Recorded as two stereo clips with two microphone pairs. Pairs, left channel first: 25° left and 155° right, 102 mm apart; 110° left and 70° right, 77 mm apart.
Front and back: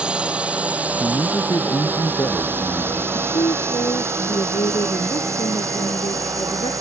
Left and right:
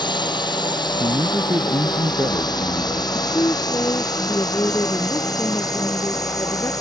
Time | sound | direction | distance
0.0 | a drone | 125° left | ?
1.0 | a man speaking | 25° right | ?
3.1 | a woman speaking | 60° left | ?